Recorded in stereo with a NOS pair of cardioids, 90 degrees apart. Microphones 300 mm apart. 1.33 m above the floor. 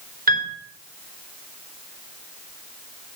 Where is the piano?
30° right, 3.5 m.